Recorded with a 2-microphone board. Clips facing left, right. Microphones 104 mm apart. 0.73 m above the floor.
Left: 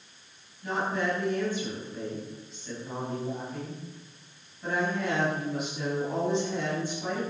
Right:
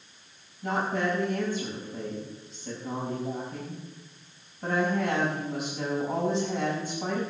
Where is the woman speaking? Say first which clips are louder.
Right 1 dB; 45° right (ahead or behind), 6.5 m.